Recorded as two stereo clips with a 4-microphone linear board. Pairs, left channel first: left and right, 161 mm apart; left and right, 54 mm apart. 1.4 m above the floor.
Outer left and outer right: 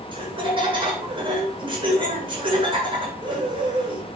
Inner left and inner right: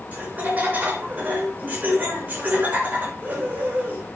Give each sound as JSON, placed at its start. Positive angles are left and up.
{"t": 0.1, "sound": "laughter", "side_deg": -30, "distance_m": 5.0}